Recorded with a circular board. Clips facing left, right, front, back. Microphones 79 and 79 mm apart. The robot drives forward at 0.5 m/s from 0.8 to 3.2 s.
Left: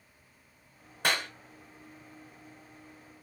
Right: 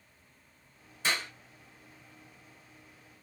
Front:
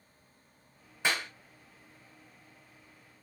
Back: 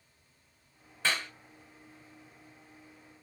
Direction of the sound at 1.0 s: 75° left.